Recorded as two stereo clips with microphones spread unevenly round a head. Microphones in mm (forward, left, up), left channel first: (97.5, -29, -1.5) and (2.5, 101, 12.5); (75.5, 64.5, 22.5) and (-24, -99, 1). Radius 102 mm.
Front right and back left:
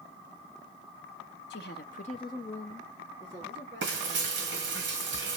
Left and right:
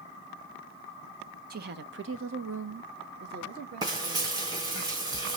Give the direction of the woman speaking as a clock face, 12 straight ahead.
3 o'clock.